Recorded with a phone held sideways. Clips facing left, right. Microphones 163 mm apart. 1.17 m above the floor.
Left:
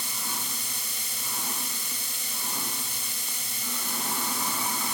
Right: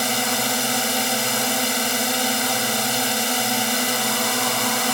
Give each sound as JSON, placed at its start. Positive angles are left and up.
{"t": 0.0, "sound": "a drone", "side_deg": -85}